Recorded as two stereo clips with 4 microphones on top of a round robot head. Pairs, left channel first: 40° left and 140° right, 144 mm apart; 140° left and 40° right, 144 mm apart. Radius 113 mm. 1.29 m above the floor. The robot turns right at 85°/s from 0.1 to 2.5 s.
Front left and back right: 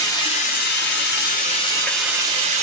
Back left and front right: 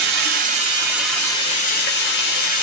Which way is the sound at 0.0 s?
30° right.